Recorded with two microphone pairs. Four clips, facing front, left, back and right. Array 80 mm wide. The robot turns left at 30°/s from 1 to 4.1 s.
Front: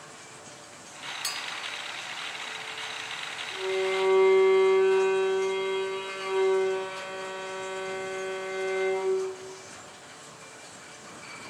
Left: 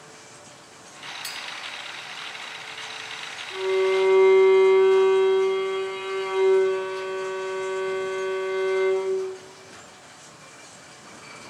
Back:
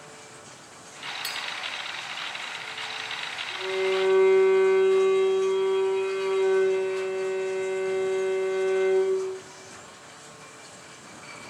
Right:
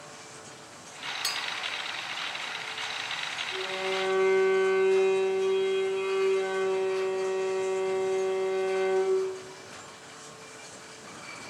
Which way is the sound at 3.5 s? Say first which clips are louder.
Left 11 dB, back 2 dB; 95° left.